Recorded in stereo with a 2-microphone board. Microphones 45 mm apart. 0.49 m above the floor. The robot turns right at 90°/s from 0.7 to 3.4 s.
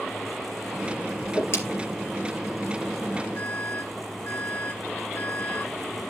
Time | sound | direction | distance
1.2 | a whoosh | 35° left (ahead or behind) | 4 m
3.4 | an alarm | 50° left (ahead or behind) | 6.5 m